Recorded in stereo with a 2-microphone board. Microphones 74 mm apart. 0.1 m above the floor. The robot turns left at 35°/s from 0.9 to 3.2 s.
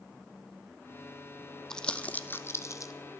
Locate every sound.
1.7 s crumpling: 10° left (ahead or behind), 0.6 m; by 2.9 s 50° left (ahead or behind), 0.6 m